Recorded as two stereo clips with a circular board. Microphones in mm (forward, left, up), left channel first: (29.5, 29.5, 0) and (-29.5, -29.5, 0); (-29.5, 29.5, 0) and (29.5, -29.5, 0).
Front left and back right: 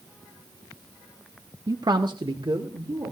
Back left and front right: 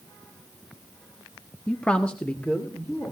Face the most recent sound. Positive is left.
turn(degrees=-150)